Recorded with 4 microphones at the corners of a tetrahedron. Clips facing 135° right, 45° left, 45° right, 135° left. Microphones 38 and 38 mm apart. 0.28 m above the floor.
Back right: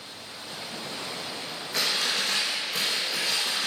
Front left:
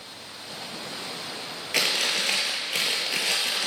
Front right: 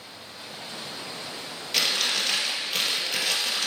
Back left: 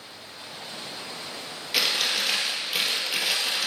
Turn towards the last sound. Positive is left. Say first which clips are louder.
# front left 2 dB, even
turn(degrees=55)